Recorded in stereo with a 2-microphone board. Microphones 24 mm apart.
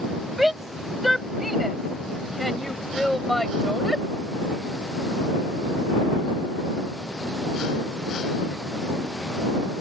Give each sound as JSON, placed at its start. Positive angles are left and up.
{"t": 0.4, "sound": "a shout", "side_deg": -5}